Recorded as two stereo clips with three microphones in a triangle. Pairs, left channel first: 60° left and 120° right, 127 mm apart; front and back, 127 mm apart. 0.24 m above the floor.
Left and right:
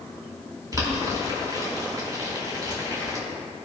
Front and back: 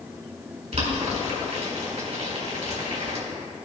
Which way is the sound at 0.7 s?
175° right.